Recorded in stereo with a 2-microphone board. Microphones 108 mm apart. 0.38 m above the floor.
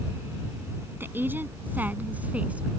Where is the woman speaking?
20° right (ahead or behind); by 2.7 s 10° right (ahead or behind).